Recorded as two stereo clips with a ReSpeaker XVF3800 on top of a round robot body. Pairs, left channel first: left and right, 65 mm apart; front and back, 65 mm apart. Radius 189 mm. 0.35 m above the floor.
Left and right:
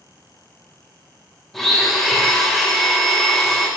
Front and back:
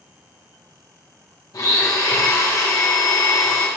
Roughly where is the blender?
Ahead.